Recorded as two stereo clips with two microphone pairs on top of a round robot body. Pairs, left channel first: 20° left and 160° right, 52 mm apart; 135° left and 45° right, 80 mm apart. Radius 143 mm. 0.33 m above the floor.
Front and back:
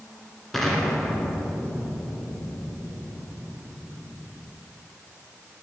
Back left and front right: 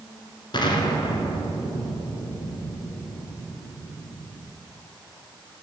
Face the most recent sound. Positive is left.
turn(degrees=105)